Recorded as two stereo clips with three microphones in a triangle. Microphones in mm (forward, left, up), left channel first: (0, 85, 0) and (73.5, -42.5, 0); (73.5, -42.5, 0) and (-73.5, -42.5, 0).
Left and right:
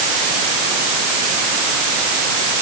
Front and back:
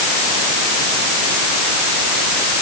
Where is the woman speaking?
I don't hear a woman speaking.